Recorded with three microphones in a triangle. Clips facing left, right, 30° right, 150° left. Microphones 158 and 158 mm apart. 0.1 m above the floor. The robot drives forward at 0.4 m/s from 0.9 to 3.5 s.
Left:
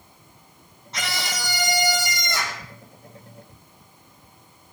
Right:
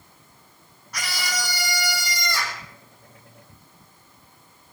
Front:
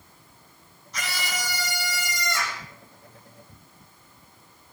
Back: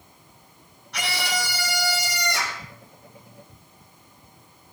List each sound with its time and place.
0.9 s a scream: 155° left, 3.5 m; by 2.6 s 160° left, 4 m